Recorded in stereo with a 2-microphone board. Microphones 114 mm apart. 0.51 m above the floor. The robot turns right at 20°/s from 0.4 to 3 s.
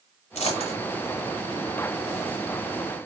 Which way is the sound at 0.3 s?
80° left.